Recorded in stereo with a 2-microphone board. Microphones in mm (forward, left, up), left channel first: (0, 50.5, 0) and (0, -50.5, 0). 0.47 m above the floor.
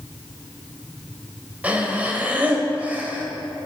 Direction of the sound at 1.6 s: 15° right (ahead or behind).